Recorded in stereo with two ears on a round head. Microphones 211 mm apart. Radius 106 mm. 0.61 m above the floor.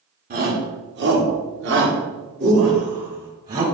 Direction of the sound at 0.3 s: 40° right (ahead or behind).